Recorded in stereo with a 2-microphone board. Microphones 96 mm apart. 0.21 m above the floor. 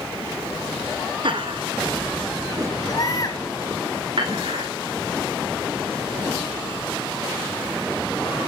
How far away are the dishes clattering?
About 9.5 m.